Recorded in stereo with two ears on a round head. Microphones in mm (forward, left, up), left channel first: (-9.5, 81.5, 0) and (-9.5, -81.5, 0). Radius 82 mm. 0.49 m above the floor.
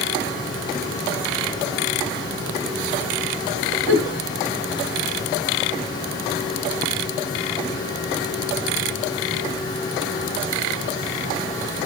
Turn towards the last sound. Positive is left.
turn(degrees=-80)